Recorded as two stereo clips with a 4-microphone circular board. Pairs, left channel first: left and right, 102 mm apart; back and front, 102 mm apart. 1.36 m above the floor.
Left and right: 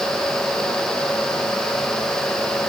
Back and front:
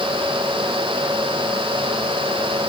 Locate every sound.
Only background noise.